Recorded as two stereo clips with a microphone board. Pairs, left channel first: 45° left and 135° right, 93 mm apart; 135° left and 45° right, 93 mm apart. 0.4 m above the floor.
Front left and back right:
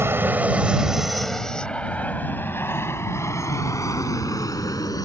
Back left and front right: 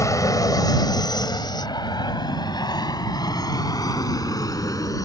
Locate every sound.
0.0 s an aircraft: 170° left; by 5.0 s 90° left